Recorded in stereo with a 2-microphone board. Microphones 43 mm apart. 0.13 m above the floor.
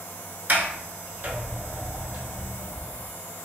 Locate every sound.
0.5 s a sliding door: 50° right (ahead or behind), 0.5 m